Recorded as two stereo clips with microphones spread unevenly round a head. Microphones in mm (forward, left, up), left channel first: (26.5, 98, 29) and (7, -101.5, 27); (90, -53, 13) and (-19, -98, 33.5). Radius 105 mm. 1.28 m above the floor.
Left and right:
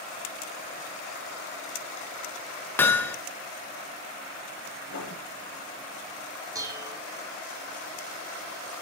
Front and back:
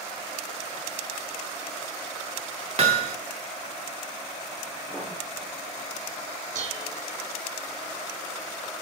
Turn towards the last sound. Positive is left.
turn(degrees=-170)